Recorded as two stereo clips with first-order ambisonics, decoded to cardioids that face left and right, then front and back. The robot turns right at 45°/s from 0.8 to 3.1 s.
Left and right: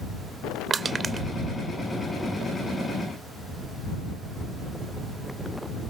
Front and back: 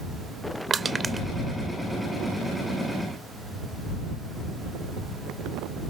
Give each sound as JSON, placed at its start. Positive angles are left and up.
{"t": 0.7, "sound": "crushing", "azimuth_deg": -140}